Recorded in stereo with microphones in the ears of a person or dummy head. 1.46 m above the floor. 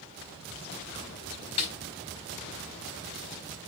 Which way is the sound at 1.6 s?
35° left (ahead or behind).